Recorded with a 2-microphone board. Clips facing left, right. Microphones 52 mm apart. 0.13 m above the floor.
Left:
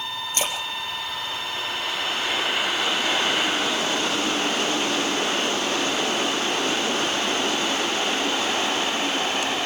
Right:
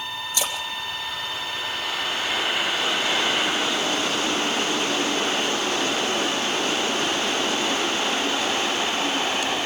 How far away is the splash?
About 3 m.